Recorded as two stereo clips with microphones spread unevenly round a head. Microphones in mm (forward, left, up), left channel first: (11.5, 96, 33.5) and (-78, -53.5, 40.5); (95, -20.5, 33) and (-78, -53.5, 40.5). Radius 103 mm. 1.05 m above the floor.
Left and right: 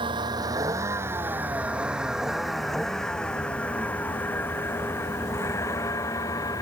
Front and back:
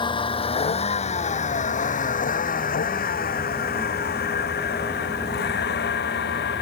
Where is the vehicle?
55° right; by 6.6 s 15° right.